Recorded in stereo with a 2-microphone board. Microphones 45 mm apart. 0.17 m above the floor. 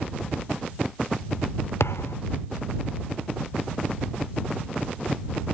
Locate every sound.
1.8 s a thud: 85° left